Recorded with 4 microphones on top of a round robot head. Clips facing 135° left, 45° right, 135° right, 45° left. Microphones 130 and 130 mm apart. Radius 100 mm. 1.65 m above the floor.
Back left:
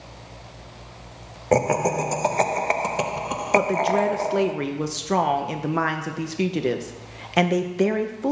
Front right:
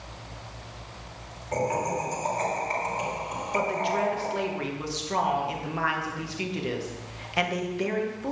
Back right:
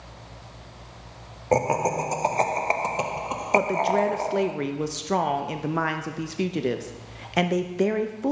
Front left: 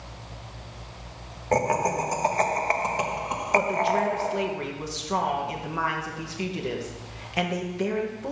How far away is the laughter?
About 0.9 m.